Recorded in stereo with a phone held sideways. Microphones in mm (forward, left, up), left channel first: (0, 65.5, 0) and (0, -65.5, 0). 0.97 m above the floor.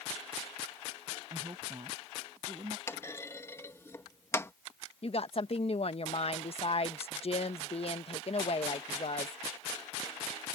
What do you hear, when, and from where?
1.3 s a woman speaking: 40° right (ahead or behind)
2.9 s a clunk: 20° left (ahead or behind)
5.0 s a woman speaking: 55° left (ahead or behind)